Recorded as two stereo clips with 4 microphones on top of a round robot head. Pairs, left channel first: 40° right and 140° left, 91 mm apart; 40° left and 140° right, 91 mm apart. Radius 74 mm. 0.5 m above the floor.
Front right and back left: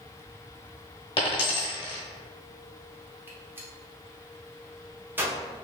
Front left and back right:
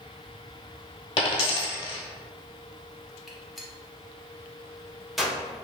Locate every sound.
1.2 s a dropped coin: 5° left, 0.8 m
3.3 s a gunshot: 130° left, 0.9 m